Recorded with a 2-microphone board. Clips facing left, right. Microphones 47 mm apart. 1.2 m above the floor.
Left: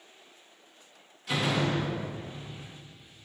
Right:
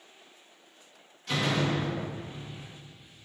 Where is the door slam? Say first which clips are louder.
Even; 5° left (ahead or behind), 1.5 m.